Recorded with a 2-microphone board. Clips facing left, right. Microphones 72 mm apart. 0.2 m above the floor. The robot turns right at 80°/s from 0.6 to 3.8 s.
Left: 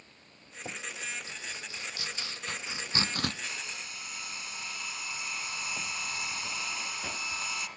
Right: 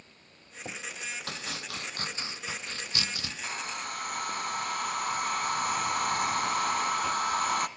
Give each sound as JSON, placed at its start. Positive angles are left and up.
{"t": 1.3, "sound": "chopping", "side_deg": -75, "distance_m": 1.1}
{"t": 3.4, "sound": "a hair dryer", "side_deg": -35, "distance_m": 0.9}